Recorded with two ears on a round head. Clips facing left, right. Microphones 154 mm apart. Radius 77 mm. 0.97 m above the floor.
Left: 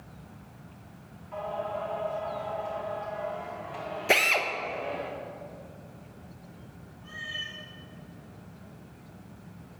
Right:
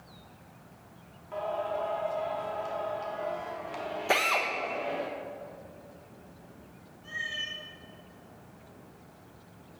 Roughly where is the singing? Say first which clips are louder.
Right 1 dB; right.